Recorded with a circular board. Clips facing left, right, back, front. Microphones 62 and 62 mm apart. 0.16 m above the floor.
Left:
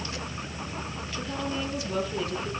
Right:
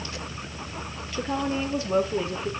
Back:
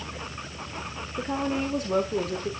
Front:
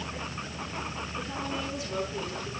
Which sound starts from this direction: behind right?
A woman speaking, at 1.2 s.